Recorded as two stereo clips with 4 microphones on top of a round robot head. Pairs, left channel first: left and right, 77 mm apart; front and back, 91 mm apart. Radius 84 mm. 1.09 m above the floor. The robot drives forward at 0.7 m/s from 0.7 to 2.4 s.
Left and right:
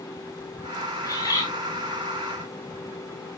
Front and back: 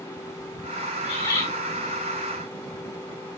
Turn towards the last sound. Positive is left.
turn(degrees=55)